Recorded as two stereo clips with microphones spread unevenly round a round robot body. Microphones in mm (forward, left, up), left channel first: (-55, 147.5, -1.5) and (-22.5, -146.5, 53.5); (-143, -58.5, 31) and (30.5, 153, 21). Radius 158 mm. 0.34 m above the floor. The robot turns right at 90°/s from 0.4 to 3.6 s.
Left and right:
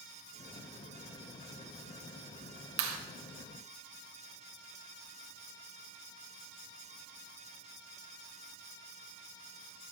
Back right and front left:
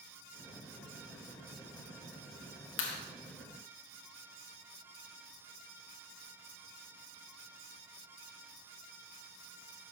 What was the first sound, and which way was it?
A clap, 100° right.